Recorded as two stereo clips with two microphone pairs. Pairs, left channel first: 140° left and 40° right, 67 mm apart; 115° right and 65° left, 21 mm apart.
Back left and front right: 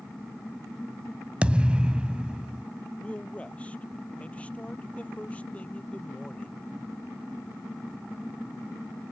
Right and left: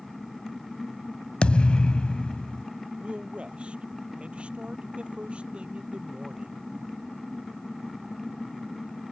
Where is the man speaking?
65° left.